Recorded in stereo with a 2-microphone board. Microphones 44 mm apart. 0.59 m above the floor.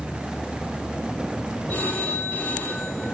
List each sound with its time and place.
1.7 s a phone ringing: 30° left (ahead or behind), 8 m